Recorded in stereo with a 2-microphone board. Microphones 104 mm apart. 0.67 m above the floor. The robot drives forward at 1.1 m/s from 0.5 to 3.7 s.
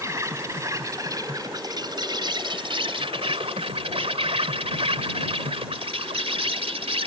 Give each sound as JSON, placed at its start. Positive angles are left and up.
{"t": 0.0, "sound": "an insect", "side_deg": -30}